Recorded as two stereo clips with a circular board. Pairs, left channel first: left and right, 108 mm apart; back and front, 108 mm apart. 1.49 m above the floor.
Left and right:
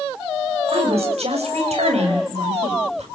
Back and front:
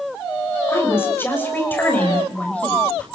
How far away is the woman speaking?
About 6 m.